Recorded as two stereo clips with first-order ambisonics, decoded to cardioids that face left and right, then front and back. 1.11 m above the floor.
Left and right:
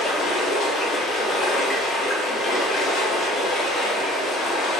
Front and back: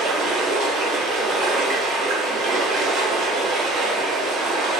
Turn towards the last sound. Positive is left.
turn(degrees=140)